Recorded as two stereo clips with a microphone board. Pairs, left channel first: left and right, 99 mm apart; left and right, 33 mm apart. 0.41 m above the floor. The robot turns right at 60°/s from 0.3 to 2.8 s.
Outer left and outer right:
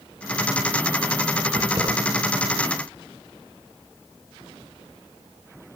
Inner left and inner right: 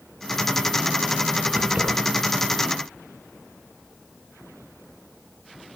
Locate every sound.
1.6 s keys jangling: 50° right (ahead or behind), 3 m; by 1.9 s 30° right (ahead or behind), 3 m